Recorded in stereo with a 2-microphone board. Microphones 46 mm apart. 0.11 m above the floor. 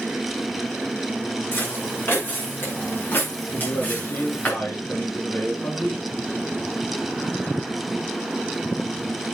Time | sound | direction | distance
1.5 | footsteps | 50° left (ahead or behind) | 9 m
3.5 | a man speaking | 60° left (ahead or behind) | 5.5 m